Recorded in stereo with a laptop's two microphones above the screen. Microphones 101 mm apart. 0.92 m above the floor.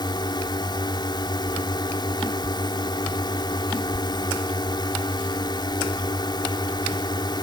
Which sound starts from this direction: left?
A drone, at 0.0 s.